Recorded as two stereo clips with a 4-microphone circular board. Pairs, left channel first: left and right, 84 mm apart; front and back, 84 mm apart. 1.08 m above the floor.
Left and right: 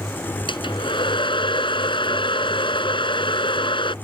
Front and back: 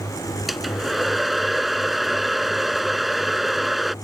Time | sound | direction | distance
0.5 | a hair dryer | 90° left | ?